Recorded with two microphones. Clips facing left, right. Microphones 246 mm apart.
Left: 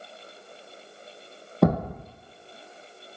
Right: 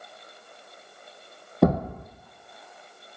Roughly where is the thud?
Centre.